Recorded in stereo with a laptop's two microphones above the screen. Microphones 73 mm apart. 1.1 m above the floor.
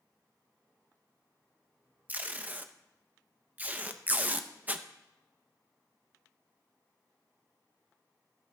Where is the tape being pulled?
20° right (ahead or behind), 0.7 m.